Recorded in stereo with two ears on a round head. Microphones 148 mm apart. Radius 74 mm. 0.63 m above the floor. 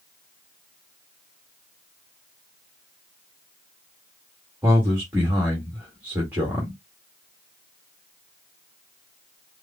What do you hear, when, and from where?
4.6 s a man speaking: 10° right (ahead or behind), 1.6 m